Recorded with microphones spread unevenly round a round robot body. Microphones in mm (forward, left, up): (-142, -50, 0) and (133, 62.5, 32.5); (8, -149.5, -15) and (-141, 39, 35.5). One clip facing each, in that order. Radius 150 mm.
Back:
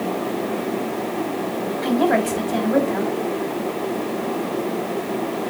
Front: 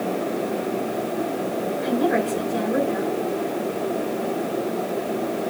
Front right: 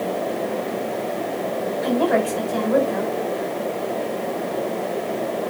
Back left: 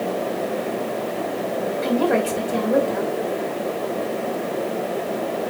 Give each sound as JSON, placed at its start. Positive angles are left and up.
{"t": 1.8, "sound": "a woman speaking", "azimuth_deg": -175, "distance_m": 5.0}